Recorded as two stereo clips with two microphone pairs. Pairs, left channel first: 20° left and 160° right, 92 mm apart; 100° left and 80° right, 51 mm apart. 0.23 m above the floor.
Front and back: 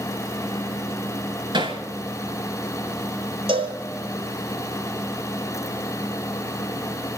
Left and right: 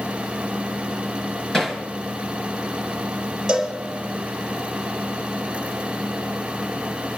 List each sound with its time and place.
1.5 s hammering: straight behind, 3.5 m
3.5 s a cowbell: 160° right, 4 m